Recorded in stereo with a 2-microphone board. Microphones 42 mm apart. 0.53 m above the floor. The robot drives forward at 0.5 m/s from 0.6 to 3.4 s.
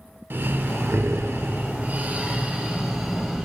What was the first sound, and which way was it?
Breathing, 60° right (ahead or behind).